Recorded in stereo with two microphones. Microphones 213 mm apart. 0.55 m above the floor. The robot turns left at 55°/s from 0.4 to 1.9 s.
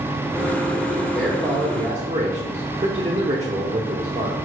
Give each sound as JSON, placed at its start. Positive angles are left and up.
{"t": 1.1, "sound": "a man speaking", "azimuth_deg": 5, "distance_m": 1.2}